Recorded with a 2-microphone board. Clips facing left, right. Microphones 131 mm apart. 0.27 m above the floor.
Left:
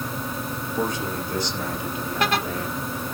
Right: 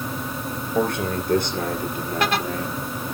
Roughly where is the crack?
I don't hear a crack.